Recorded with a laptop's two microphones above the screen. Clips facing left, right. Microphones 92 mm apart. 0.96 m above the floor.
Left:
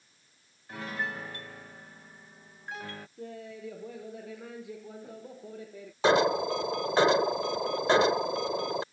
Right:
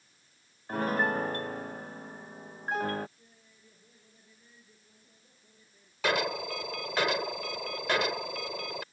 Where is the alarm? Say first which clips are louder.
Left 7 dB; 30° left (ahead or behind).